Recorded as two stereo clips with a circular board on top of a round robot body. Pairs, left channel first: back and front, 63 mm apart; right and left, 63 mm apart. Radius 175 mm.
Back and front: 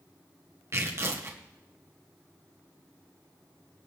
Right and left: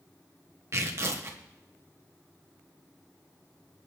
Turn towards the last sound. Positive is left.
turn(degrees=45)